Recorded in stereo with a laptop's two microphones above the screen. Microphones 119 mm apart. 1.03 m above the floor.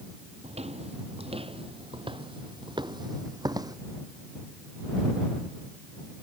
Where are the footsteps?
65° right (ahead or behind); by 3.8 s 30° right (ahead or behind).